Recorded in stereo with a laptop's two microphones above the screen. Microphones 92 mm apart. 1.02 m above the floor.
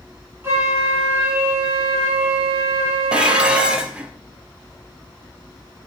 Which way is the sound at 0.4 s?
30° right (ahead or behind).